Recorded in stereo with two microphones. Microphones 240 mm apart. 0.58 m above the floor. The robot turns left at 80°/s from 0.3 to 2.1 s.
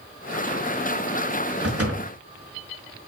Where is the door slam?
80° right, 5 m; by 2.1 s 115° right, 5 m.